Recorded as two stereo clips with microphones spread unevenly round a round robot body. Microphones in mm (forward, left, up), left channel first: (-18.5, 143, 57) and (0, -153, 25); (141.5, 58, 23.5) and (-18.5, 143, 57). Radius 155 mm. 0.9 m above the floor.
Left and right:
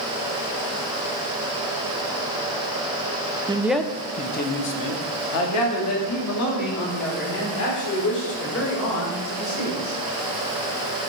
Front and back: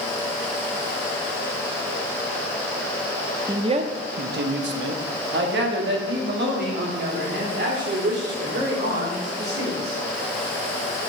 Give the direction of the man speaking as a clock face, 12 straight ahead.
4 o'clock.